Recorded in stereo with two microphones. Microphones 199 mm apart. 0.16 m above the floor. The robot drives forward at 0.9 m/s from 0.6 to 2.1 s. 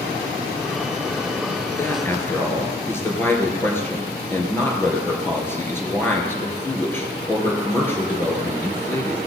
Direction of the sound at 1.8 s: 15° left (ahead or behind).